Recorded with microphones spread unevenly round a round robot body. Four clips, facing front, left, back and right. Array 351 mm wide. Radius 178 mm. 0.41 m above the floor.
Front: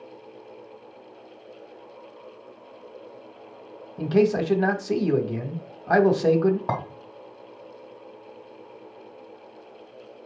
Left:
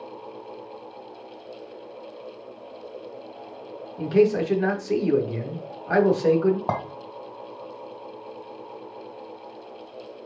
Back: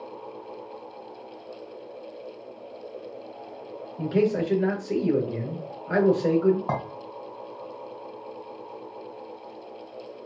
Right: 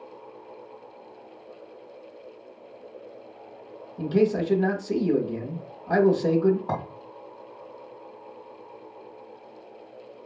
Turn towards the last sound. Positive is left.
turn(degrees=65)